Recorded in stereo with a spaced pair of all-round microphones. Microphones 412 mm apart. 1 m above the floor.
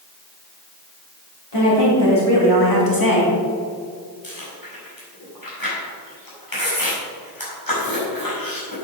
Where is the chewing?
55° left (ahead or behind), 4 m.